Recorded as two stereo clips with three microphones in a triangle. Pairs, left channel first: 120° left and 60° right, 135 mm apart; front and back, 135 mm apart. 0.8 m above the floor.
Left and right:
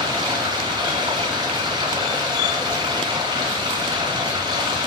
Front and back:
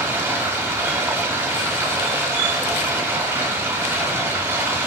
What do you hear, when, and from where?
0.0 s running water: 115° right, 0.9 m